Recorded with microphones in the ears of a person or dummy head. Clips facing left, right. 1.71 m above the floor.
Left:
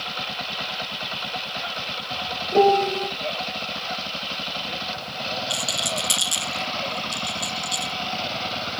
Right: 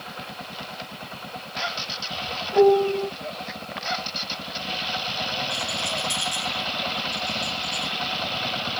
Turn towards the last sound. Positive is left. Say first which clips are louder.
# left 1 dB
turn(degrees=55)  # may be behind; listen again after turning